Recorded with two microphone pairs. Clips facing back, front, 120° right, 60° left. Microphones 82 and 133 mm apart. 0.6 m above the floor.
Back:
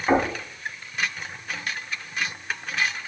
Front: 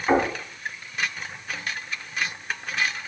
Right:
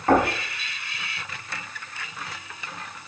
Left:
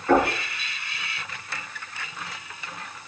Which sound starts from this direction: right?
Knocking, at 0.1 s.